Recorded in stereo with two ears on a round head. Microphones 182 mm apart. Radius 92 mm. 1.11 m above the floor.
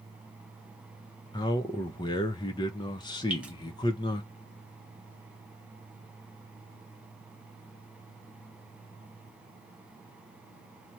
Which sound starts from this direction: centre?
Dripping, at 3.3 s.